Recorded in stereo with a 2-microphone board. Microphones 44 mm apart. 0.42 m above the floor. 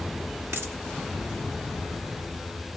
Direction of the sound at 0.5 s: 75° right (ahead or behind).